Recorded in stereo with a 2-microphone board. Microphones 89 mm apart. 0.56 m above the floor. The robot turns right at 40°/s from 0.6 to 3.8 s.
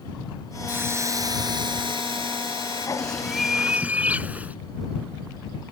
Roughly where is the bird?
Behind.